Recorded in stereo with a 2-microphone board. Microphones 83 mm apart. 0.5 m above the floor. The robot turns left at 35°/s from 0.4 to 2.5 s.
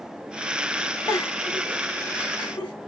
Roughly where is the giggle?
Left.